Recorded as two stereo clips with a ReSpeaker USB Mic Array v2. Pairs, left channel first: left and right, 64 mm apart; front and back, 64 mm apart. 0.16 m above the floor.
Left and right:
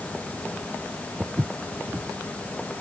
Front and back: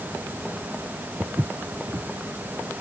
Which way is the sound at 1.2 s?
145° right.